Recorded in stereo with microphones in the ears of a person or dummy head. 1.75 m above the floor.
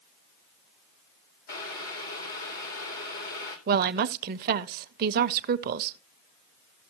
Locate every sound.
1.5 s boiling: 55° left (ahead or behind), 2.5 m
3.7 s a woman speaking: 50° right (ahead or behind), 0.6 m